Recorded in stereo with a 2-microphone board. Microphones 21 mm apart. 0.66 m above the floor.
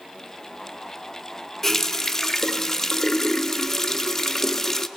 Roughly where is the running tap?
Left.